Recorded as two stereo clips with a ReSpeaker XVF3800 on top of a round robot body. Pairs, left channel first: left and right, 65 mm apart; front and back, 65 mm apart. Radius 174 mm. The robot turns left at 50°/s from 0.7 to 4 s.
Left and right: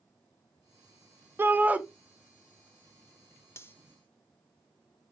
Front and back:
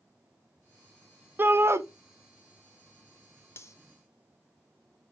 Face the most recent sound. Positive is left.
turn(degrees=25)